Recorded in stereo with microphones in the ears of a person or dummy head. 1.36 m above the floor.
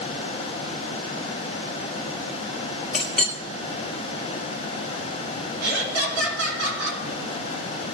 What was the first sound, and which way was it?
A clink, 5° left (ahead or behind).